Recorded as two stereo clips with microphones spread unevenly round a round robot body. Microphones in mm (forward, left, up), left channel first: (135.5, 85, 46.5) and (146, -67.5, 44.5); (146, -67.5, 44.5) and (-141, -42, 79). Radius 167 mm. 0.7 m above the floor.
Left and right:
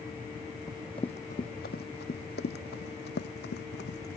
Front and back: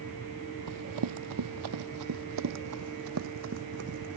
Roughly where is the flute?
No flute in this recording.